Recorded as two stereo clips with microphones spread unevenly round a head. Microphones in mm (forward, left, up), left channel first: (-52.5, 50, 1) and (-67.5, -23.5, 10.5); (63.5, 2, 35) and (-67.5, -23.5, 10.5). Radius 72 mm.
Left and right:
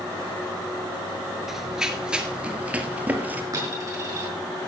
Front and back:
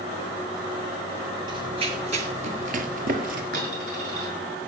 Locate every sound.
1.5 s running footsteps: 155° right, 1.6 m
3.5 s a dropped coin: 140° right, 7 m